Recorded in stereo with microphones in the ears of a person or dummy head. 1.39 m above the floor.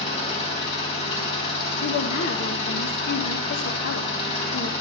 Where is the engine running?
35° left (ahead or behind), 4 m.